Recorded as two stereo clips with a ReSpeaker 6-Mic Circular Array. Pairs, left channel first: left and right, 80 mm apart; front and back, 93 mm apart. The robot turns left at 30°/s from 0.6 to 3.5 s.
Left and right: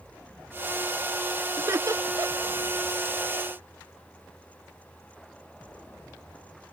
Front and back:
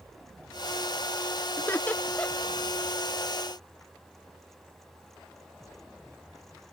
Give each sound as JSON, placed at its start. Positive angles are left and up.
{"t": 1.6, "sound": "laughter", "azimuth_deg": -55}